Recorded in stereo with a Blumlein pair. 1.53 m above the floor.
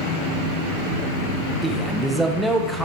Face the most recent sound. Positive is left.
turn(degrees=-5)